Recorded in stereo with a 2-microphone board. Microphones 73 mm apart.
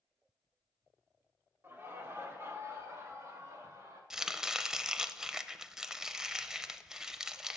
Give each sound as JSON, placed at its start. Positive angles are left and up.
{"t": 1.6, "sound": "laughter", "side_deg": -30, "distance_m": 1.8}
{"t": 4.1, "sound": "chopping", "side_deg": -10, "distance_m": 0.5}